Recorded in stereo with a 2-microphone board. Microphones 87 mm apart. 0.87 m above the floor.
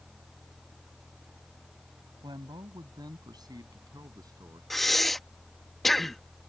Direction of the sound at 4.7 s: Centre (ahead or behind).